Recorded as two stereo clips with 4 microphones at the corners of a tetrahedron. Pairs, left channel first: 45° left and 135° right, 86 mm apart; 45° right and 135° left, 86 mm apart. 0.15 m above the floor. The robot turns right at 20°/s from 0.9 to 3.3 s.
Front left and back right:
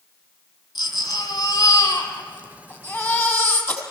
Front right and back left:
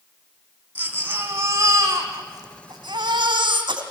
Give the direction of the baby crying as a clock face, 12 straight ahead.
10 o'clock.